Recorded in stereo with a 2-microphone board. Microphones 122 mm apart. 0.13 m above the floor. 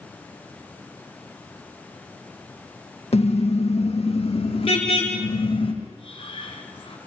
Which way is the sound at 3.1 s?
60° left (ahead or behind).